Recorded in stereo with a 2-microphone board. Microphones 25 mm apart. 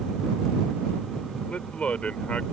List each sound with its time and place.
1.5 s a man speaking: 60° left (ahead or behind)